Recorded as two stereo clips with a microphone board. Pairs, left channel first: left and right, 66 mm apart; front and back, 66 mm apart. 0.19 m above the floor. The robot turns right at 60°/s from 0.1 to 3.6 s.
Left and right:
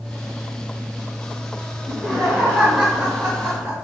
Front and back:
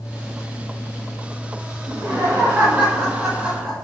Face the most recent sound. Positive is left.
turn(degrees=-90)